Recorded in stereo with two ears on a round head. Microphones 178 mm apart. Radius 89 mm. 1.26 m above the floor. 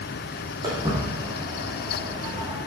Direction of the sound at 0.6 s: 20° right (ahead or behind).